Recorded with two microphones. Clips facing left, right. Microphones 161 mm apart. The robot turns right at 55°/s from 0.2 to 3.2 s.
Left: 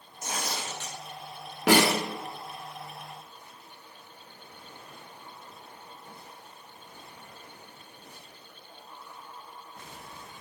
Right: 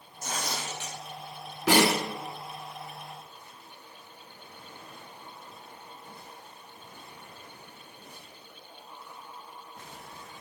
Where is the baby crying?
No baby crying in this recording.